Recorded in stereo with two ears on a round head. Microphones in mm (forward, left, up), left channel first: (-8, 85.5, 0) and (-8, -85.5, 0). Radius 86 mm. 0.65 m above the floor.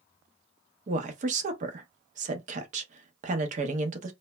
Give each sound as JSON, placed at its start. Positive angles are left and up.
{"t": 0.9, "sound": "a woman speaking", "side_deg": -40, "distance_m": 0.6}